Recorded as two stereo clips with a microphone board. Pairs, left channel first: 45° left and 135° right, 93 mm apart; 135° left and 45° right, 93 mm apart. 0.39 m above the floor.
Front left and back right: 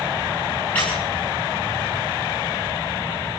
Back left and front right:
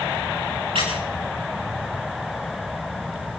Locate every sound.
0.8 s a squeak: 30° right, 7 m